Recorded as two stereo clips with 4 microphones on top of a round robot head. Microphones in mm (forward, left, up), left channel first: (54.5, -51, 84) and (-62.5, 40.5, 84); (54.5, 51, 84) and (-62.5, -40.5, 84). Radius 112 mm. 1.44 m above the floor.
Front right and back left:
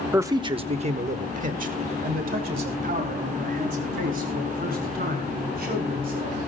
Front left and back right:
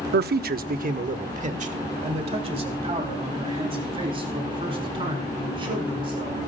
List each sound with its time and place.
0.1 s a man speaking: 140° right, 0.6 m; by 6.4 s 160° left, 4.5 m